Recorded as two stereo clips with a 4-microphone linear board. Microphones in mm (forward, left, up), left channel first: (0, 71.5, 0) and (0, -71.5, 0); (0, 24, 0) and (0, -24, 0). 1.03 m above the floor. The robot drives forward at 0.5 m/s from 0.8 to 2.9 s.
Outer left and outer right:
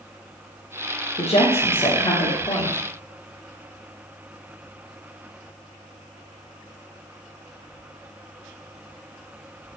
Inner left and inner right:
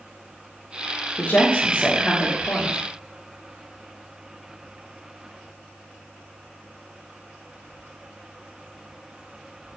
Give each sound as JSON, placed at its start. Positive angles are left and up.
{"t": 1.2, "sound": "a woman speaking", "side_deg": 50, "distance_m": 0.9}